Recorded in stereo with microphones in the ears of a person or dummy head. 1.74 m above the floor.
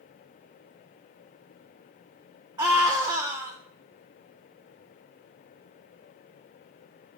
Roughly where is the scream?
Centre.